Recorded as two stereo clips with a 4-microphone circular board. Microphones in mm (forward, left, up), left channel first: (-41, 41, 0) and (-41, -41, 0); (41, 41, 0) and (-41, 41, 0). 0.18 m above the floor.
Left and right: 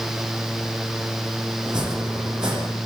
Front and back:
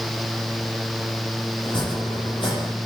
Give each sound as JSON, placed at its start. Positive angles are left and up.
{"t": 1.6, "sound": "chopping", "azimuth_deg": -10, "distance_m": 8.0}